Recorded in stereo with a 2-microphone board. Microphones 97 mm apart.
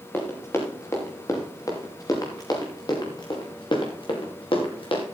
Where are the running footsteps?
25° left (ahead or behind), 5.5 m; by 5.0 s 65° left (ahead or behind), 5.5 m.